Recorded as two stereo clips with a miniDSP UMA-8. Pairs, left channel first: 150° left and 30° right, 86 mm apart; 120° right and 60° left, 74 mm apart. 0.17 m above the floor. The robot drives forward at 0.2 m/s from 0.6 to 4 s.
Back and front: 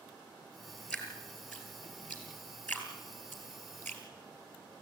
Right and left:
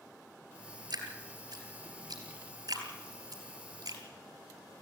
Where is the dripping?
75° left, 3.5 m; by 4.0 s 85° left, 3.5 m.